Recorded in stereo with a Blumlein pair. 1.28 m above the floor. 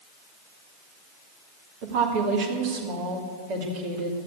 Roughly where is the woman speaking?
Ahead right.